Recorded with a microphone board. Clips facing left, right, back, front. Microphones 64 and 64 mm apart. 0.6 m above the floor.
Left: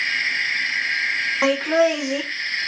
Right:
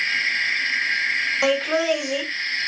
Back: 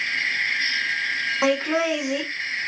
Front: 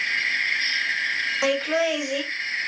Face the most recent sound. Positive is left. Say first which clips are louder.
# left 4 dB, back 1 dB
turn(degrees=135)